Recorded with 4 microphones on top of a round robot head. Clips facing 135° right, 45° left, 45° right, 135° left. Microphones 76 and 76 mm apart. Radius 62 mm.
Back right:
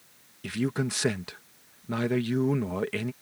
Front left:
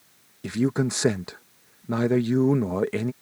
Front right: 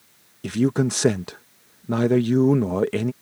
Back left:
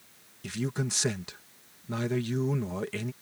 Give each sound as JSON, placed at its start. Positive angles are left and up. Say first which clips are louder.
{"t": 0.4, "sound": "a man speaking", "louder": "front left 5 dB, front right 12 dB", "azimuth_deg": -20}